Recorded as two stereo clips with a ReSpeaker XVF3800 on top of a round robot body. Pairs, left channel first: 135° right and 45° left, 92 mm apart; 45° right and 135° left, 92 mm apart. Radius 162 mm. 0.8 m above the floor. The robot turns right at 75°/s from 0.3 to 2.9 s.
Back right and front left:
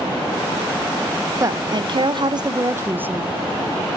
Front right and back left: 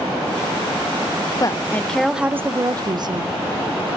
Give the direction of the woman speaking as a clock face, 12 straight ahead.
12 o'clock.